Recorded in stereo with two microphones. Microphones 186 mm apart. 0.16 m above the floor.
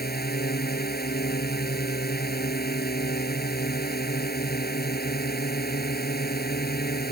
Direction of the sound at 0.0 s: 55° left (ahead or behind).